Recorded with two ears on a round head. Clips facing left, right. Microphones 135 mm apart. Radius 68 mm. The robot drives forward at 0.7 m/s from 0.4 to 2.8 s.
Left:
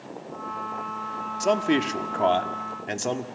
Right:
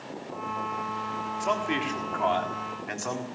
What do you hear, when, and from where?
1.4 s a man speaking: 45° left (ahead or behind), 1.4 m; by 3.3 s 35° left (ahead or behind), 1.7 m